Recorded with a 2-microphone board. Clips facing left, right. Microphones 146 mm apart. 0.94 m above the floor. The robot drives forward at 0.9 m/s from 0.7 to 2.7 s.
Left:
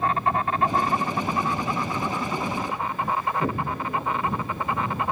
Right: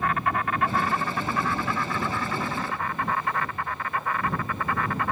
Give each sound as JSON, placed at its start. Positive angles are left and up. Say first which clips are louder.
{"t": 0.0, "sound": "an insect", "louder": "left 2 dB", "side_deg": 30}
{"t": 3.4, "sound": "an explosion", "louder": "left 5 dB", "side_deg": 55}